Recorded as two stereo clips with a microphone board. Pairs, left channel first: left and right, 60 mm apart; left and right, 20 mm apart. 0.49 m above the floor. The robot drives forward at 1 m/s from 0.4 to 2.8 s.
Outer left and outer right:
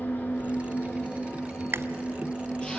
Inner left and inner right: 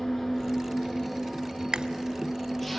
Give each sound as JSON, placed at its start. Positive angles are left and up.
{"t": 0.0, "sound": "an engine running", "side_deg": 25, "distance_m": 2.5}
{"t": 1.7, "sound": "chewing", "side_deg": -45, "distance_m": 0.6}